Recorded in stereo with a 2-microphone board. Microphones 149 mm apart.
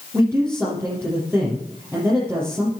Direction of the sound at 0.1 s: 15° right (ahead or behind).